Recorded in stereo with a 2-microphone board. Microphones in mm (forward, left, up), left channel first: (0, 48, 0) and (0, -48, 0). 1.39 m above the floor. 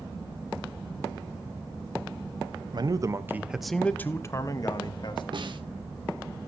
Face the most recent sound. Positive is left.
turn(degrees=-55)  # may be behind; listen again after turning